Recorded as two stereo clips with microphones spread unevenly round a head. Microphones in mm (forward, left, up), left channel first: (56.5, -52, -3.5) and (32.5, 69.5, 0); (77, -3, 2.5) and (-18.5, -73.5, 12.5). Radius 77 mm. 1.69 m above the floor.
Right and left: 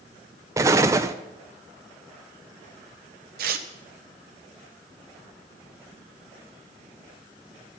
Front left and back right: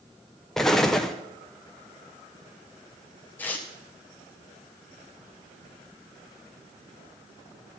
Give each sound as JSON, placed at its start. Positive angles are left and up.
{"t": 0.6, "sound": "an explosion", "azimuth_deg": 130, "distance_m": 0.5}
{"t": 3.4, "sound": "tearing paper", "azimuth_deg": 115, "distance_m": 0.9}